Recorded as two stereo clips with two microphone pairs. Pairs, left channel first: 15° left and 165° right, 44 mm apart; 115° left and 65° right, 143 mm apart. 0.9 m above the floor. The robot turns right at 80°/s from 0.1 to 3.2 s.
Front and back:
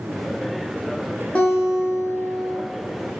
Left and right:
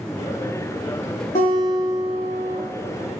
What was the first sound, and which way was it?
A guitar, 80° left.